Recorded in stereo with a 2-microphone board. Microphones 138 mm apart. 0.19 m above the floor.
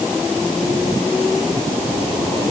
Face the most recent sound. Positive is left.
No sound to turn to.